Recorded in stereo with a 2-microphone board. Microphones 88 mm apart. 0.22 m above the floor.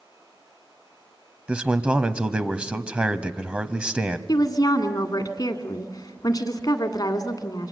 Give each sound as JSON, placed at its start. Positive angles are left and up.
{"t": 1.5, "sound": "a man speaking", "side_deg": -15, "distance_m": 1.0}
{"t": 4.3, "sound": "a woman speaking", "side_deg": 55, "distance_m": 1.7}